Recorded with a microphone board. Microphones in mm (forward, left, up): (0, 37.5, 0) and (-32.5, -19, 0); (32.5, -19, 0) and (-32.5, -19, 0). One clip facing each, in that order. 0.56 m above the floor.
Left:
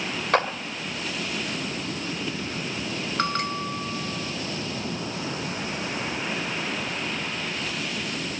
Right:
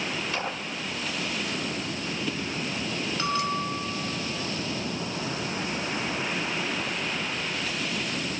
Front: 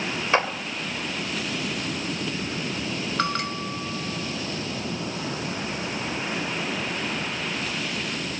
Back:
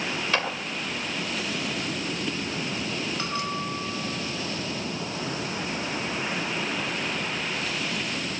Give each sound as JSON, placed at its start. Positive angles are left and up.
{"t": 0.3, "sound": "a clap", "azimuth_deg": 60, "distance_m": 2.0}
{"t": 3.2, "sound": "a bell", "azimuth_deg": 25, "distance_m": 1.4}